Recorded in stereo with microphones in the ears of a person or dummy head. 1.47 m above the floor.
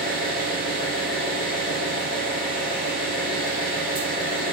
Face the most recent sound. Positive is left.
turn(degrees=30)  # may be behind; listen again after turning